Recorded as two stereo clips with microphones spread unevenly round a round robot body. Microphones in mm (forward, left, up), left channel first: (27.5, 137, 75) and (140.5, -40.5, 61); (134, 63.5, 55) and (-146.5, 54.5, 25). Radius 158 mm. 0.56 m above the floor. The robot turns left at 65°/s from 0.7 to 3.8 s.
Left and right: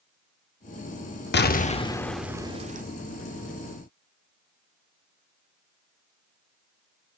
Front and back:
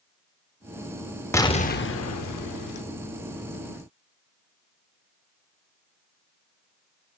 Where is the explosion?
85° left, 1.1 m; by 2.8 s 10° right, 1.1 m.